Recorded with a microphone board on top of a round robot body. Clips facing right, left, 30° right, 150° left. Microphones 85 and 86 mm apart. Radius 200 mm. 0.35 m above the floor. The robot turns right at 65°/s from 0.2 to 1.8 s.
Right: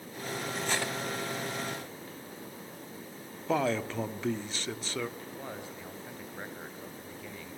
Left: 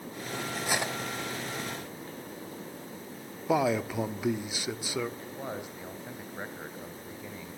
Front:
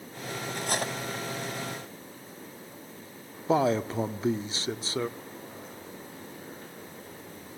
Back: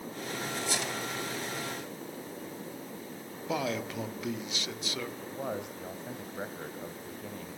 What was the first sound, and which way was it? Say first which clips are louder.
Cutlery clinking: left 2 dB, front 5 dB; straight ahead.